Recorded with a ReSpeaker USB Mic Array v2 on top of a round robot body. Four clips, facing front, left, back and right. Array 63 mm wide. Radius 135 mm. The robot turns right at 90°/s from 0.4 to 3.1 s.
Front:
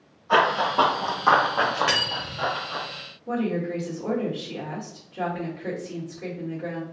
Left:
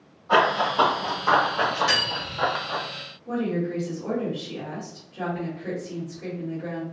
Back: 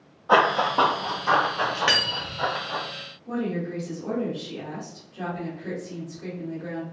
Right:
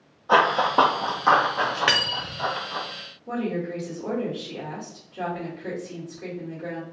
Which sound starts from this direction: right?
Cutlery clinking, at 1.9 s.